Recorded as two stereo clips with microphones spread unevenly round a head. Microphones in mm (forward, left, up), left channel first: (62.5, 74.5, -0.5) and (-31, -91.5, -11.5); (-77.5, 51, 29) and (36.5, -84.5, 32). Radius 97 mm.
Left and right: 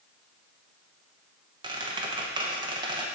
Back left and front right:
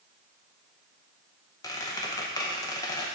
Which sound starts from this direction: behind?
A squeak, at 1.6 s.